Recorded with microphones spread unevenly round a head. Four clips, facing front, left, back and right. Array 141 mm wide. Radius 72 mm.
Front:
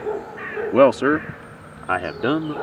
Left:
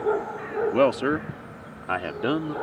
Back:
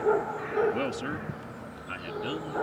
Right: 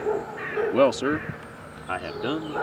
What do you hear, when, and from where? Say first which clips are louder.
0.7 s a man speaking: right 1 dB, front 17 dB; straight ahead; by 2.5 s 20° left